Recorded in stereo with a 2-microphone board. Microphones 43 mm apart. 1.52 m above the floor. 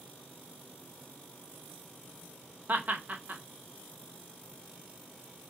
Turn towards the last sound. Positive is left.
turn(degrees=-45)  # may be behind; listen again after turning